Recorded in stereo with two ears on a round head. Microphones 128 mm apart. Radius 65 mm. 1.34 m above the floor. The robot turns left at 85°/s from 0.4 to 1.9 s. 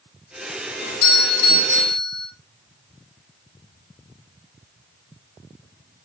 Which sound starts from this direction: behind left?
A doorbell, at 0.8 s.